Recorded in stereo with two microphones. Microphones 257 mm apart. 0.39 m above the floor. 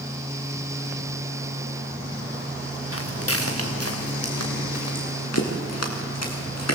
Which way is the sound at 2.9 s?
60° left (ahead or behind).